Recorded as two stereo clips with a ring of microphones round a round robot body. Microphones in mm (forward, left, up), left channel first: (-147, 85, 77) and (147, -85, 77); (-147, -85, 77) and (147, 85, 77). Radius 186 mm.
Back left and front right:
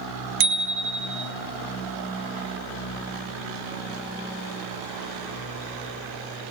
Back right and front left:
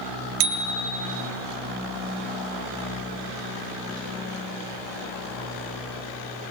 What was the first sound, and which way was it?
A bicycle bell, 25° left.